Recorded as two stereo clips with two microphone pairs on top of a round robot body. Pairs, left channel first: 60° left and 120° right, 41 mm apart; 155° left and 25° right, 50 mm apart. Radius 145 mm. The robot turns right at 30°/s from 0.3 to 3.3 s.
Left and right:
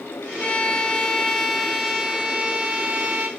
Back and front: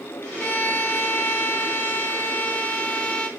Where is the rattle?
No rattle in this recording.